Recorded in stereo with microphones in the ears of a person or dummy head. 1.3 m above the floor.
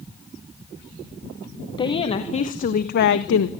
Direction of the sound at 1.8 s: 30° left (ahead or behind).